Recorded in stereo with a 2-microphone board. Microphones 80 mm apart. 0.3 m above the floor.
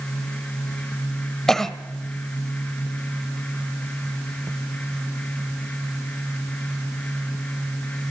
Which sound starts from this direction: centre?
A cough, at 1.5 s.